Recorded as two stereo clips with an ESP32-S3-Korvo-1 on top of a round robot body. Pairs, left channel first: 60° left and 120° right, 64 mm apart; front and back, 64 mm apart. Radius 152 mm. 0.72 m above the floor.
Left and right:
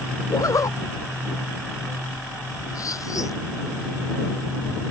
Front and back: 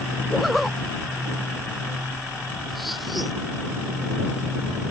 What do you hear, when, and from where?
0.3 s a zipper: 90° left